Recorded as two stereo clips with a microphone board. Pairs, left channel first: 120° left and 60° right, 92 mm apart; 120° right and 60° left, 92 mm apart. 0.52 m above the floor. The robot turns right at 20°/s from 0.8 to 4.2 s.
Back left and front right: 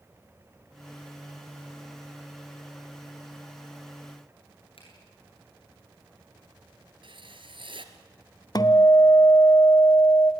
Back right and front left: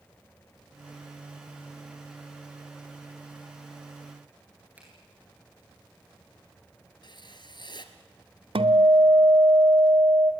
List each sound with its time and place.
4.8 s a finger snap: 135° left, 9 m
7.0 s writing: 85° right, 1.8 m
8.6 s a guitar: 75° left, 0.9 m